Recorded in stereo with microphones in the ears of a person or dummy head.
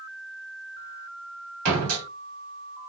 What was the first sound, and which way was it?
A door slam, 60° right (ahead or behind).